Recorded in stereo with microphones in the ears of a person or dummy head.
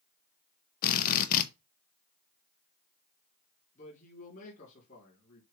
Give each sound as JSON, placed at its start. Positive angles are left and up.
{"t": 0.8, "sound": "a drill", "side_deg": 50, "distance_m": 0.7}
{"t": 3.8, "sound": "a man speaking", "side_deg": 40, "distance_m": 3.5}